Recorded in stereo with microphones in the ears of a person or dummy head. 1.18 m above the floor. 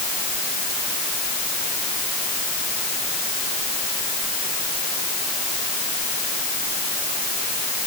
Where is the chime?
No chime in this recording.